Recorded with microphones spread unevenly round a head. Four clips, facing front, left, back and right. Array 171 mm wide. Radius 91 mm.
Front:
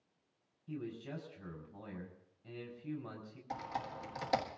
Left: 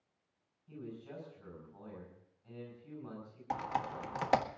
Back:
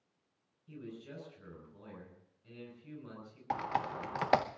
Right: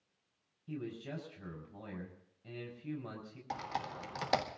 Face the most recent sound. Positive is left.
turn(degrees=170)